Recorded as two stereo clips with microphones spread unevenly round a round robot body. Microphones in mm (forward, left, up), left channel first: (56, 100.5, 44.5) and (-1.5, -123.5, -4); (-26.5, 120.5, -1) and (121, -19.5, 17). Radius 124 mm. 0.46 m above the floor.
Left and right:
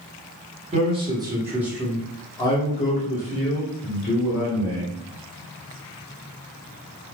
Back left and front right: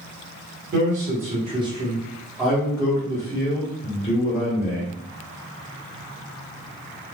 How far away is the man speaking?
About 1.4 m.